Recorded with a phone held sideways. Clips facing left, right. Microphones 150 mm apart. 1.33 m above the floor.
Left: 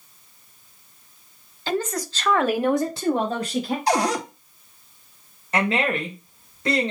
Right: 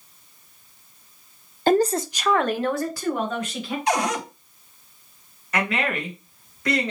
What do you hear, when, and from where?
1.7 s a woman speaking: 50° right (ahead or behind), 0.5 m; by 3.8 s 40° left (ahead or behind), 1.3 m
3.9 s a cupboard door: 35° left (ahead or behind), 0.9 m
5.5 s a woman speaking: 25° left (ahead or behind), 1.9 m